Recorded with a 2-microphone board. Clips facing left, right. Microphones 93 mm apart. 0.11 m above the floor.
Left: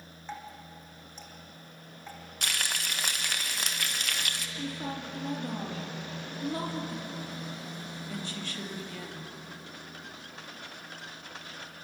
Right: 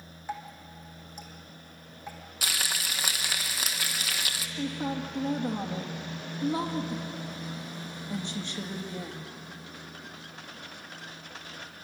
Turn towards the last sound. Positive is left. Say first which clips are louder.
# right 6 dB
turn(degrees=-25)  # may be behind; listen again after turning